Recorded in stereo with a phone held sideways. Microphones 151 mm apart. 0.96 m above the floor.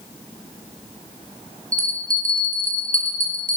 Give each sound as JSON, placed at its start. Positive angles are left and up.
{"t": 1.7, "sound": "a bell", "side_deg": -65, "distance_m": 3.0}